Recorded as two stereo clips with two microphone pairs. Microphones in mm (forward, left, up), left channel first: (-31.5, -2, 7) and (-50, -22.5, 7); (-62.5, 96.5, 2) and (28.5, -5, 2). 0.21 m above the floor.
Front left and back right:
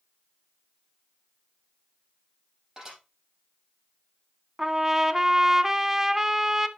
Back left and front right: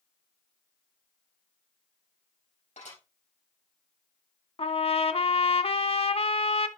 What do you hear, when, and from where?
2.8 s dishes clattering: 160° left, 5 m
4.6 s a trumpet: 160° left, 0.6 m